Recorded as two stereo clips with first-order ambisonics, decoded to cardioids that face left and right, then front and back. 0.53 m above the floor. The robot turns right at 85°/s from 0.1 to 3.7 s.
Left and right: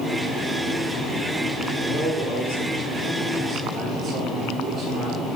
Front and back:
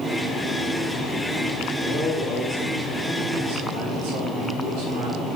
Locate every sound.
1.8 s a man speaking: 40° left, 4.5 m; by 5.3 s 155° right, 4.5 m